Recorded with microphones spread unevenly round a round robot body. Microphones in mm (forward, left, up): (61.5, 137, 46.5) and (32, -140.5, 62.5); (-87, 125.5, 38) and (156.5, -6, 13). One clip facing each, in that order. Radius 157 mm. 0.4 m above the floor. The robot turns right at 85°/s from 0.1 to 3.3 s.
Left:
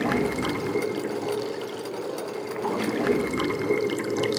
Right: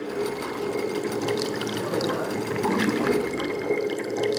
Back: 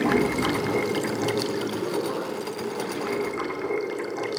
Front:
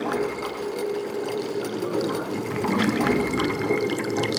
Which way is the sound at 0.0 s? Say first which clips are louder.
Left 3 dB, back 4 dB; 100° left.